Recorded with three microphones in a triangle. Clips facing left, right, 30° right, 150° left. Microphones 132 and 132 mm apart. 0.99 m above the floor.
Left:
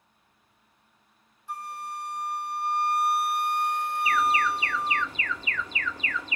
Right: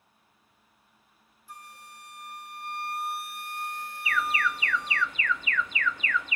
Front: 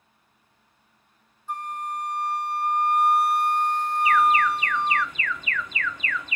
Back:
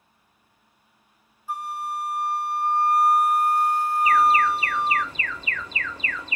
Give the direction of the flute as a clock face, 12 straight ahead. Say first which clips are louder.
Left 12 dB, back 1 dB; 10 o'clock.